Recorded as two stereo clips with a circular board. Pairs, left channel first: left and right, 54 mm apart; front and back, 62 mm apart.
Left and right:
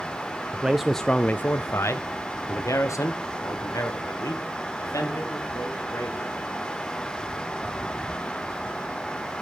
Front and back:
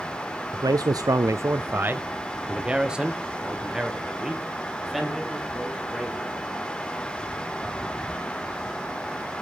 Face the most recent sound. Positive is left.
turn(degrees=90)